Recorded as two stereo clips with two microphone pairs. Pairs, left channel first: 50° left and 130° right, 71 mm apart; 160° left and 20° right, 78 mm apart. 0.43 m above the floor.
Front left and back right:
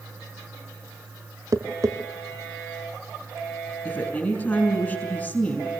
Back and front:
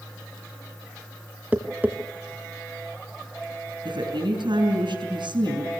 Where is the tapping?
90° right, 1.3 m.